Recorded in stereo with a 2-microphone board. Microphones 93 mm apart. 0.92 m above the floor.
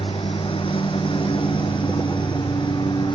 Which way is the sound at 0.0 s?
70° left (ahead or behind).